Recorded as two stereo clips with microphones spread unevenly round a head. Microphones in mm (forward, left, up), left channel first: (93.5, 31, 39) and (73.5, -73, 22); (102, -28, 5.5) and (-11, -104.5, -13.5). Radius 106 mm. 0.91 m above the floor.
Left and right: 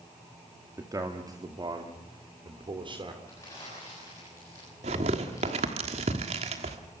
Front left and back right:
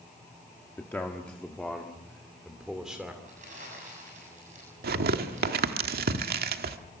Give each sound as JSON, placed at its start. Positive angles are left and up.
{"t": 0.8, "sound": "a man speaking", "azimuth_deg": -40, "distance_m": 1.8}
{"t": 3.3, "sound": "crumpling", "azimuth_deg": 155, "distance_m": 6.5}
{"t": 4.8, "sound": "tearing paper", "azimuth_deg": -145, "distance_m": 1.3}